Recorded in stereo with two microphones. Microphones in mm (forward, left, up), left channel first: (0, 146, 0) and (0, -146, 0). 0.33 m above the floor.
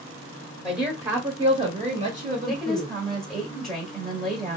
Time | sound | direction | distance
0.6 | a woman speaking | centre (ahead or behind) | 1.1 m
2.5 | a woman speaking | centre (ahead or behind) | 1.0 m